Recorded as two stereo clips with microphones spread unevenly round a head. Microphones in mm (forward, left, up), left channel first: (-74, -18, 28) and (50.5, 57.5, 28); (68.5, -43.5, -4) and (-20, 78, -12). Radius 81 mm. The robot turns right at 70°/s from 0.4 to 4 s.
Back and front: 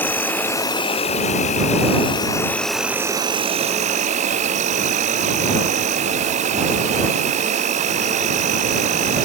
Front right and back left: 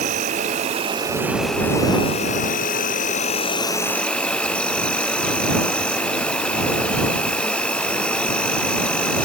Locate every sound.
0.0 s an insect: 140° left; by 9.3 s 30° left